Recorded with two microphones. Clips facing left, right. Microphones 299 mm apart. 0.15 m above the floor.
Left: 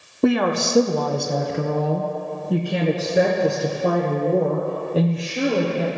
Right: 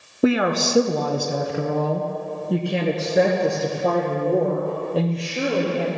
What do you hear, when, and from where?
0.2 s a woman speaking: 5° right (ahead or behind), 1.3 m; by 5.9 s 5° left (ahead or behind), 4 m